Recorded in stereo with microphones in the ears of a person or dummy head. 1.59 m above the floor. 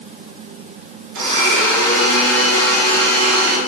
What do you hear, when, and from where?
1.1 s a blender: 70° right (ahead or behind), 2.5 m